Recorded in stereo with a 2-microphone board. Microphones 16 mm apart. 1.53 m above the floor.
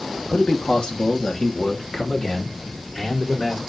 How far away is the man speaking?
About 2.5 m.